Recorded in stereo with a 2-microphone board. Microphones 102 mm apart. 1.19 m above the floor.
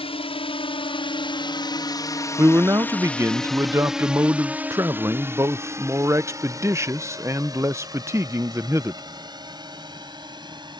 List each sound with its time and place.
0.0 s a drone: 70° left (ahead or behind); by 10.8 s 45° right (ahead or behind)
2.4 s a man speaking: 30° right (ahead or behind)